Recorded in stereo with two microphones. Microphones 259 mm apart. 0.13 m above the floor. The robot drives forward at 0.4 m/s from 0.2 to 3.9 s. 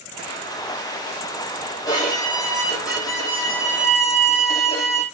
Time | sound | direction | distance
1.9 | a violin | 15° left (ahead or behind) | 4.5 m